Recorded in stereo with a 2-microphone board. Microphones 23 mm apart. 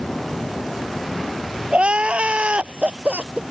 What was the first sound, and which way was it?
Crying, 55° right (ahead or behind).